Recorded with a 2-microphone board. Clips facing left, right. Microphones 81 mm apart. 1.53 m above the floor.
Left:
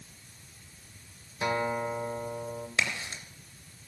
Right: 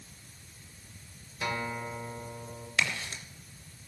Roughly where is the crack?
Left.